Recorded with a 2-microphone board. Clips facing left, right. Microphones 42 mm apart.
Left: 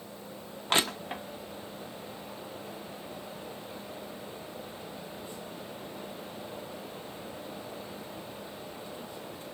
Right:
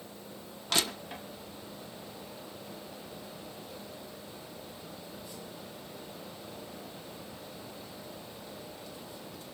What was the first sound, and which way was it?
Crushing, 35° left (ahead or behind).